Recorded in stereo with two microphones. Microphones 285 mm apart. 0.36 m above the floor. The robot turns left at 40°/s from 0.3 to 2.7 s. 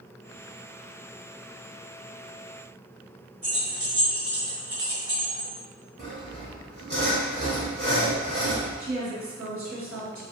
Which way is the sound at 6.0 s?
35° right (ahead or behind).